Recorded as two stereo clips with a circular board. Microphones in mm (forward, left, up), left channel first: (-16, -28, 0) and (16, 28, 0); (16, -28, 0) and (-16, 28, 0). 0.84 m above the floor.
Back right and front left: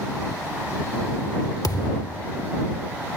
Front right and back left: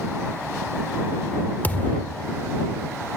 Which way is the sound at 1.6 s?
120° right.